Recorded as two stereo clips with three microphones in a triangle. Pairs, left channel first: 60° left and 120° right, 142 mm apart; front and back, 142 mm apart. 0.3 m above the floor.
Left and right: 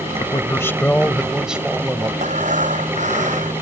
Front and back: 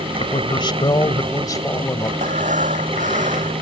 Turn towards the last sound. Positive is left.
turn(degrees=-150)